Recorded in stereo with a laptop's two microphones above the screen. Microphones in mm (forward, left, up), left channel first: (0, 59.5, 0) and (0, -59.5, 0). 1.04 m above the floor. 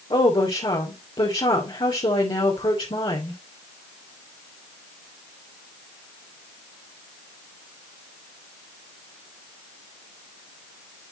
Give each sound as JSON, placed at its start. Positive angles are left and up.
{"t": 0.1, "sound": "a woman speaking", "side_deg": 50, "distance_m": 3.0}